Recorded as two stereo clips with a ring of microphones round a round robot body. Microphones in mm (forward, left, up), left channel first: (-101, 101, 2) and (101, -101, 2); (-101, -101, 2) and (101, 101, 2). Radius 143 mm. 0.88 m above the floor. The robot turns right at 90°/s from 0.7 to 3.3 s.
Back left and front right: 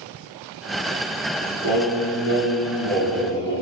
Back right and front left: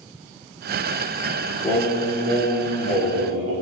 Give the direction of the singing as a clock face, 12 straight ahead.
2 o'clock.